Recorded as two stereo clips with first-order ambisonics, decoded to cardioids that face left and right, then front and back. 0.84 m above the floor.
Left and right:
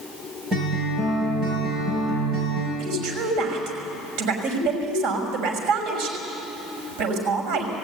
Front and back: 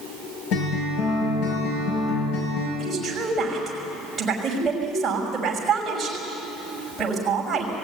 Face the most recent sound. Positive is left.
turn(degrees=-95)